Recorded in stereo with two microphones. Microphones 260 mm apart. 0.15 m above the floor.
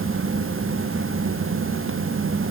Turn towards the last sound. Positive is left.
No sound to turn to.